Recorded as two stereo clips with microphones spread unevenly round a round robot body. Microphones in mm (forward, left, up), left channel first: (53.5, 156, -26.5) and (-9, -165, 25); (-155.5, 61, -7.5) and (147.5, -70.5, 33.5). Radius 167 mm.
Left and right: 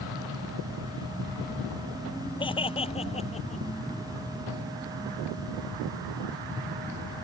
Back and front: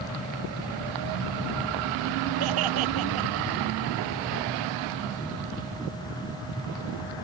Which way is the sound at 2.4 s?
5° left.